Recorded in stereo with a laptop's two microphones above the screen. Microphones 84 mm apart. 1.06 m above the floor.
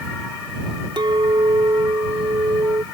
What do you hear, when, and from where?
1.0 s a clink: 75° right (ahead or behind)